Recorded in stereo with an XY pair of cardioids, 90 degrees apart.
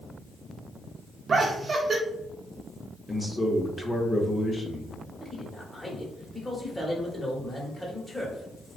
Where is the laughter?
40° right, 0.9 m.